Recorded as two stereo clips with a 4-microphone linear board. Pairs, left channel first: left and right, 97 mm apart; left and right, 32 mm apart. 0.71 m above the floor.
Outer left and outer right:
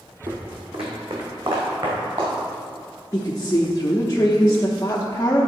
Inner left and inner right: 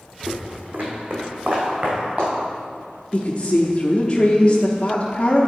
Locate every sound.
0.3 s footsteps: 65° right (ahead or behind), 1.5 m; by 2.3 s 60° right (ahead or behind), 4 m
3.1 s a woman speaking: 30° left (ahead or behind), 0.8 m